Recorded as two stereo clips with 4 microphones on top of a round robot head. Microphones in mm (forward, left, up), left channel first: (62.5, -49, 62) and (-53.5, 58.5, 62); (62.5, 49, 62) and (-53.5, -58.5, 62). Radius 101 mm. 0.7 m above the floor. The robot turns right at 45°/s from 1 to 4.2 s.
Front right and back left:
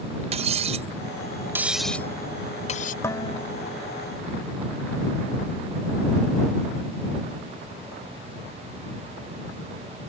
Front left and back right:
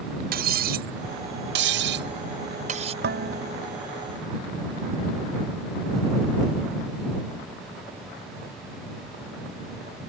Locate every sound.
0.3 s cutlery clinking: 170° right; by 2.9 s 80° right
3.0 s dishes clattering: 115° right; by 3.8 s 80° right